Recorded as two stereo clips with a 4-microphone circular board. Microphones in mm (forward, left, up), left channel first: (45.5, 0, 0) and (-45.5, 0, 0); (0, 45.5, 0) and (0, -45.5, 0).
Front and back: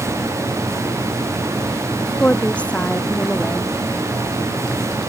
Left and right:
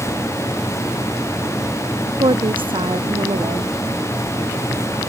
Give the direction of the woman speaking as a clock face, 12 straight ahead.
3 o'clock.